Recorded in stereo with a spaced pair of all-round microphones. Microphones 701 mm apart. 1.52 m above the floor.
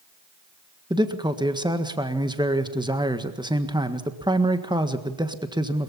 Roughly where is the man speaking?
Centre.